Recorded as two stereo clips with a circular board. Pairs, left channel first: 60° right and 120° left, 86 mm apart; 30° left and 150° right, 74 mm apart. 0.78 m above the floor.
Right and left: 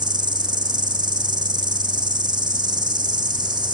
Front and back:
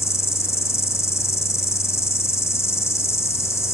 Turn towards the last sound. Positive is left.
turn(degrees=85)